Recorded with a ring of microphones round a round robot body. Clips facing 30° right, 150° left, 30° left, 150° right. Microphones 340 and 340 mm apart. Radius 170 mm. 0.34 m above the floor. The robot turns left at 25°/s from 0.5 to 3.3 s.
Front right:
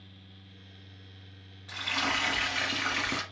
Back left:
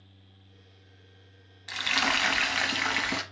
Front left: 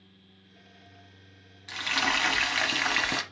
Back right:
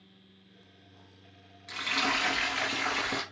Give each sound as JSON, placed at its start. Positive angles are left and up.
{"t": 1.7, "sound": "frying", "azimuth_deg": 110, "distance_m": 0.9}